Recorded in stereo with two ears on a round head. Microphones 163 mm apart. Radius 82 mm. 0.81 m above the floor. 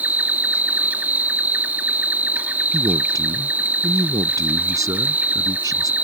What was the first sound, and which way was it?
An insect, 10° right (ahead or behind).